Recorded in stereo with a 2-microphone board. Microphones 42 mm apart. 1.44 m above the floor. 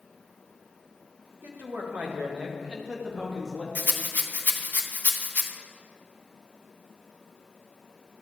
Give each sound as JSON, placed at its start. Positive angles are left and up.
{"t": 1.4, "sound": "a man speaking", "side_deg": -60, "distance_m": 1.6}
{"t": 3.8, "sound": "a rattle", "side_deg": 45, "distance_m": 0.8}